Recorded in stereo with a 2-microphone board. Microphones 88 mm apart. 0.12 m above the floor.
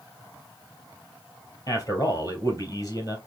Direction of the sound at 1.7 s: 40° left (ahead or behind).